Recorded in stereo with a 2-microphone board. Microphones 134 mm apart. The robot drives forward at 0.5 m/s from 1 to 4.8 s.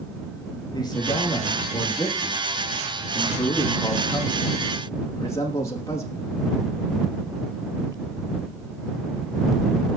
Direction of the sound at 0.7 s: 30° left (ahead or behind).